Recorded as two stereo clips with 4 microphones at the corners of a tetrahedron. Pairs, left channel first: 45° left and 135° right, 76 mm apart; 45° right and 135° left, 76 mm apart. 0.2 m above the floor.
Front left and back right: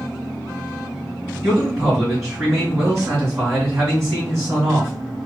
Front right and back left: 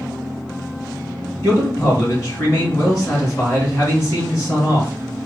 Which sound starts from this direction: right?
A man speaking, at 1.4 s.